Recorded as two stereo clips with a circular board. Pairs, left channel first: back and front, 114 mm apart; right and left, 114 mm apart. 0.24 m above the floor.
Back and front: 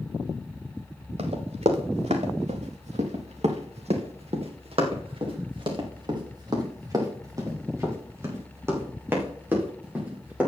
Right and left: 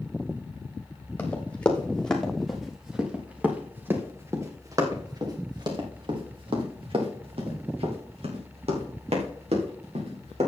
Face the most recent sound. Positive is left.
turn(degrees=75)